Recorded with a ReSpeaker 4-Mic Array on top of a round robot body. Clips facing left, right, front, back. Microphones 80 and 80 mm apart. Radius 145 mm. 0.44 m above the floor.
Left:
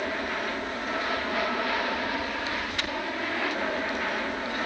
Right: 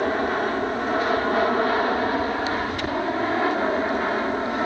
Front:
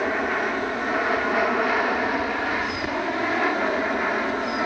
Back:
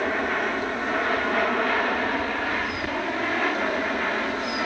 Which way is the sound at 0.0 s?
80° right.